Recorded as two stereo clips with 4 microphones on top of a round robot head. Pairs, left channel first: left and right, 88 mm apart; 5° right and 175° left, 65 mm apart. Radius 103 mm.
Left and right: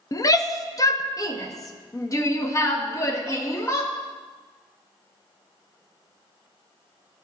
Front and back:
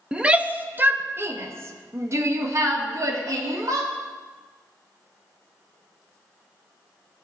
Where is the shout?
105° left, 1.0 m; by 3.9 s 145° left, 2.5 m.